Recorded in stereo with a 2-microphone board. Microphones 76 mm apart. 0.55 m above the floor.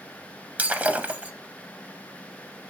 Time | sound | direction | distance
0.6 | breaking glass | 20° right (ahead or behind) | 0.5 m